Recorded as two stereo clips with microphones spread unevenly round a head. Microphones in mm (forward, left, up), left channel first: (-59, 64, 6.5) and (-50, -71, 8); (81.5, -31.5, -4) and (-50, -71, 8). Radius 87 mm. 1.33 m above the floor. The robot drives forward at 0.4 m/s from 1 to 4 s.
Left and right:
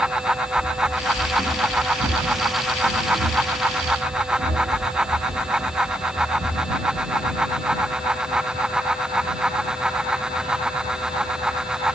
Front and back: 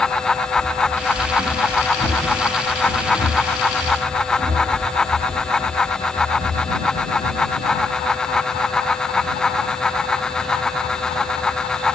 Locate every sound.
0.6 s running footsteps: 60° right, 4.5 m; by 7.5 s 165° right, 1.9 m